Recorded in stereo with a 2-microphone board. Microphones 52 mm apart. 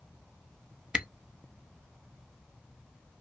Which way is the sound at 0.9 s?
20° right (ahead or behind).